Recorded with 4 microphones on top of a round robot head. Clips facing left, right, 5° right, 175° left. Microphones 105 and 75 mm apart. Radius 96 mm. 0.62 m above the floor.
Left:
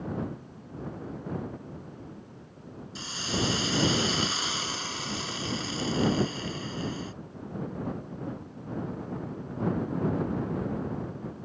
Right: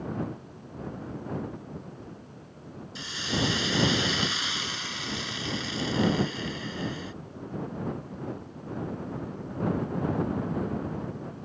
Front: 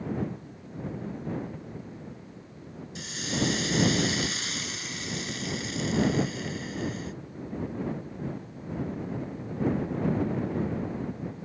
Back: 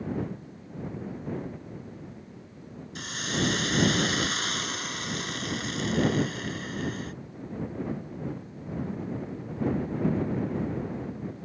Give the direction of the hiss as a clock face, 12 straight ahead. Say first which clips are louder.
Right 1 dB, even; 7 o'clock.